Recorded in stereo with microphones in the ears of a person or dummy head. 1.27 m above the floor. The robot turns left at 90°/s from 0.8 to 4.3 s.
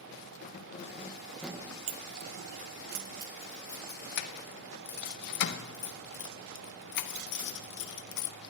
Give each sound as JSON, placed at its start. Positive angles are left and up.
{"t": 0.4, "sound": "keys jangling", "side_deg": 50, "distance_m": 0.5}